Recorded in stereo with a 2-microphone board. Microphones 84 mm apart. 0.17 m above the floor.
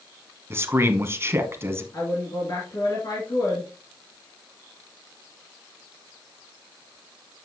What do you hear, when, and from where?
0.5 s a man speaking: 30° right (ahead or behind), 1.2 m
1.9 s a woman speaking: 50° left (ahead or behind), 2.5 m